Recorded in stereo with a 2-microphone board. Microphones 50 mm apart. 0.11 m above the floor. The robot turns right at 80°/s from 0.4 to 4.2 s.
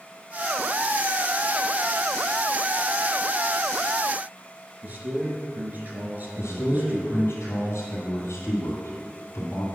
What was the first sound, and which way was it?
A man speaking, 35° right (ahead or behind).